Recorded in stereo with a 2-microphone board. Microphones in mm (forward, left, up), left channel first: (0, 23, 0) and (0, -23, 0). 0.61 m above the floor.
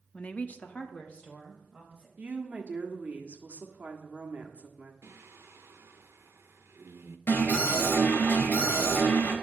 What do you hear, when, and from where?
0.1 s a woman speaking: 30° left (ahead or behind), 0.8 m; by 2.1 s 15° left (ahead or behind), 3 m
2.2 s a woman speaking: 35° right (ahead or behind), 1.5 m
5.0 s singing: 70° right (ahead or behind), 0.8 m
7.3 s an alarm: 50° left (ahead or behind), 3.5 m